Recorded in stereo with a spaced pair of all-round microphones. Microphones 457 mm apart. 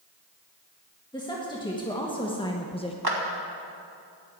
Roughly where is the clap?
Right.